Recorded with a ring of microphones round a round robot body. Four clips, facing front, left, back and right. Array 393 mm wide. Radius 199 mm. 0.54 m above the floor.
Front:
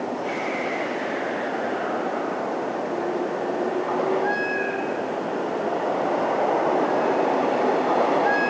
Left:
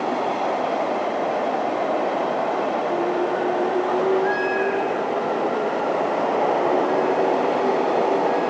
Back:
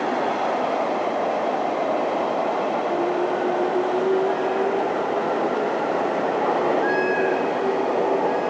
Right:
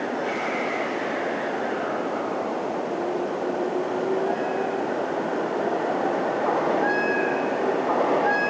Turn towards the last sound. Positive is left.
No sound to turn to.